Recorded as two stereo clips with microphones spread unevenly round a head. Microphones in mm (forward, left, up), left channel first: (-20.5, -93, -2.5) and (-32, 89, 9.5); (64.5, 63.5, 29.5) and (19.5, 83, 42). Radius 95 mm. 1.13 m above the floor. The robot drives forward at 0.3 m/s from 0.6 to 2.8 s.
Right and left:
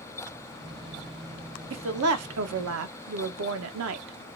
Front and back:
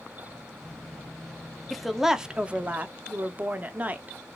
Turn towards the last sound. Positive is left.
turn(degrees=95)